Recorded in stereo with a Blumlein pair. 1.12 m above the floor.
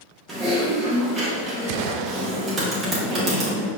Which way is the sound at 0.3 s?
20° right.